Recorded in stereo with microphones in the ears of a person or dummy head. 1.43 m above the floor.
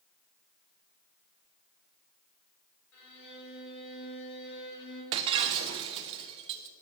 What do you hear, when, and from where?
2.9 s a violin: 85° left, 4.5 m
5.1 s breaking glass: 25° right (ahead or behind), 0.5 m